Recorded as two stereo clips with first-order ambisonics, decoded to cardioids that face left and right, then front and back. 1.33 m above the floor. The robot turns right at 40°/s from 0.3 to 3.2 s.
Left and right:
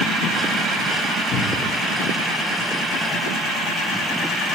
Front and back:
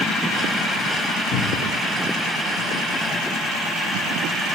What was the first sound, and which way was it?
A cupboard door, 45° left.